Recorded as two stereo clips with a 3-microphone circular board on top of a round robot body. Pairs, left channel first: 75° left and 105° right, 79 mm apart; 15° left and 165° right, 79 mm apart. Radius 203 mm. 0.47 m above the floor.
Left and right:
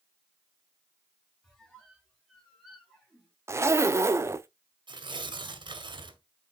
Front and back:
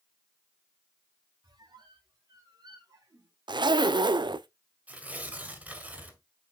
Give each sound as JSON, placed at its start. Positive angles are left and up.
{"t": 1.4, "sound": "a squeak", "azimuth_deg": 160, "distance_m": 3.5}
{"t": 3.5, "sound": "a zipper", "azimuth_deg": -155, "distance_m": 0.7}
{"t": 4.9, "sound": "tearing paper", "azimuth_deg": -95, "distance_m": 1.7}